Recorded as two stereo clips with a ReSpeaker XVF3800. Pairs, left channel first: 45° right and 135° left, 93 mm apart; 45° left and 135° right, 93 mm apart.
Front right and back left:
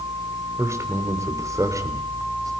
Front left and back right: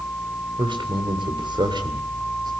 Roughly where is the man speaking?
Behind.